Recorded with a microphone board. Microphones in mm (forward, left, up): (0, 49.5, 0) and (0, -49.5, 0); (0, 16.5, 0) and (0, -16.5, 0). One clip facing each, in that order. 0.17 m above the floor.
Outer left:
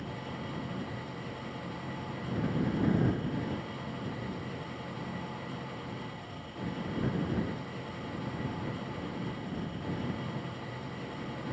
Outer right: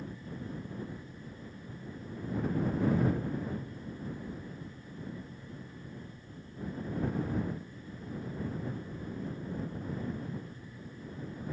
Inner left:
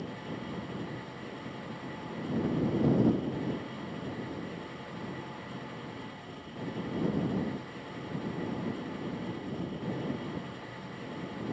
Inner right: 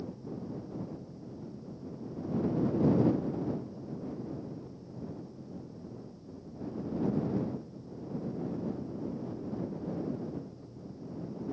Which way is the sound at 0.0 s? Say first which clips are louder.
Outer left 3 dB, inner left 2 dB; 80° left.